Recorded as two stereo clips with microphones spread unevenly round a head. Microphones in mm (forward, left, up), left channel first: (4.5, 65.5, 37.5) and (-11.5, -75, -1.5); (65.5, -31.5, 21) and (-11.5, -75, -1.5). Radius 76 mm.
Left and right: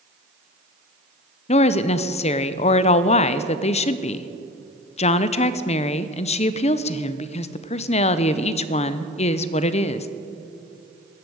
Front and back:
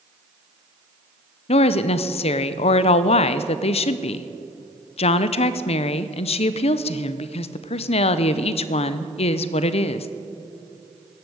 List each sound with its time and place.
1.5 s a woman speaking: 30° left, 0.6 m